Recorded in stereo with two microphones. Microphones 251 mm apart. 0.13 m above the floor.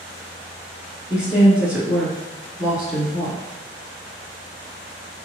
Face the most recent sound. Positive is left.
turn(degrees=-5)  # may be behind; listen again after turning